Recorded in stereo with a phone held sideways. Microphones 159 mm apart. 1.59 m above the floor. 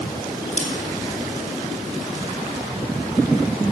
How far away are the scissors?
About 3 m.